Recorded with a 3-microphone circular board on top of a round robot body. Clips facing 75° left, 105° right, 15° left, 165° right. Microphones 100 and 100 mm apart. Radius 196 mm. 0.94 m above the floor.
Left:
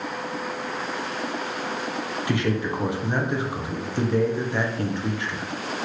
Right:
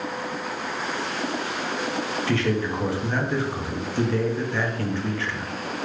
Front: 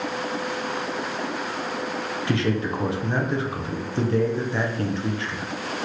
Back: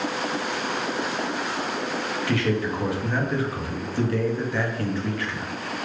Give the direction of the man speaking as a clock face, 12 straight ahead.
11 o'clock.